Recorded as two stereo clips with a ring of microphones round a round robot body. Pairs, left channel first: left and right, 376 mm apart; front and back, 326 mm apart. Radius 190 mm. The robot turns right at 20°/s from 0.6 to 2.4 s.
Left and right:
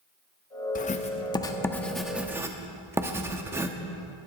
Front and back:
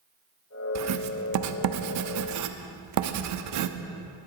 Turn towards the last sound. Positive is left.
turn(degrees=-170)